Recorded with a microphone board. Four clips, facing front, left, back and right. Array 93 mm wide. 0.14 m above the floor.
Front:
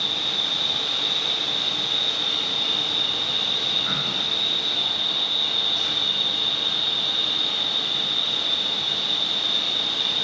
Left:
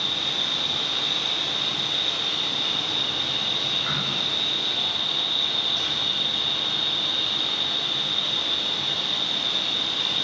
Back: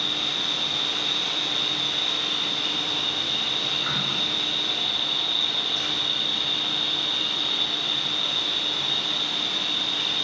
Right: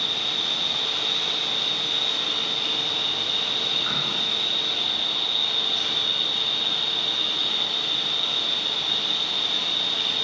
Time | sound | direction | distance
0.0 | an insect | 175° right | 1.5 m